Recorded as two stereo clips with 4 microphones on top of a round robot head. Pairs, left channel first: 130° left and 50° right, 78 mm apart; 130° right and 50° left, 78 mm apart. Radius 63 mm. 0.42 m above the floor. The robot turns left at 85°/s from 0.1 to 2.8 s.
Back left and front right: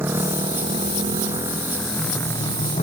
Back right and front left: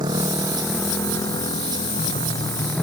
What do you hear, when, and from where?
0.0 s a motorcycle: 15° left; by 2.8 s 145° left